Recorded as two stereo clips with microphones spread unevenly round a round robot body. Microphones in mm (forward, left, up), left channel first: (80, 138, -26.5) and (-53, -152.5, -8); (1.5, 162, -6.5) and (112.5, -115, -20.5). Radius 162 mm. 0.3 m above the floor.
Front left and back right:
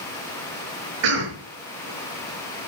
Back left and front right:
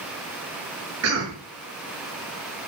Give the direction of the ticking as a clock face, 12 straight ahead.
No ticking in this recording.